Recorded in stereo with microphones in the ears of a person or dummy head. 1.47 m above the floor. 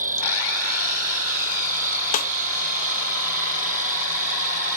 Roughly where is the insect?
Right.